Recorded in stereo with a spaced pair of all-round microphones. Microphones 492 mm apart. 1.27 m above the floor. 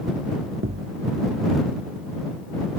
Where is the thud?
25° right (ahead or behind).